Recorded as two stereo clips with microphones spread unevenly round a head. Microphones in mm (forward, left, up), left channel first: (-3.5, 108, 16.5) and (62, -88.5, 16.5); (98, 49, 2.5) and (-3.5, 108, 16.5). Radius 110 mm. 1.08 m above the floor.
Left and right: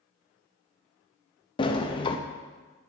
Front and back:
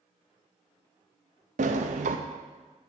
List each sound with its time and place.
1.6 s a sliding door: 175° left, 0.5 m